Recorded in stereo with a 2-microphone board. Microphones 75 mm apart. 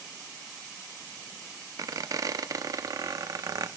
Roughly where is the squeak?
Right.